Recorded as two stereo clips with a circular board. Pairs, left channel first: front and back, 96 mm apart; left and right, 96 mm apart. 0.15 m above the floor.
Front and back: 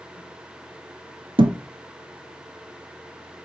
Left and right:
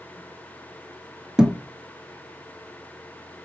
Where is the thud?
170° right, 0.7 m.